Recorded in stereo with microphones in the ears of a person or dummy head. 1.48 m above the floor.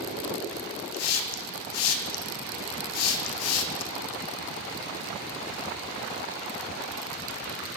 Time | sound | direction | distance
0.9 | a hiss | 80° left | 1.4 m